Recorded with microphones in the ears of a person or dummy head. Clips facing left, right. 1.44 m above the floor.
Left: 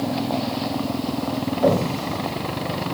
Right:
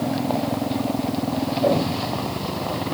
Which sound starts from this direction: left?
An explosion, at 1.6 s.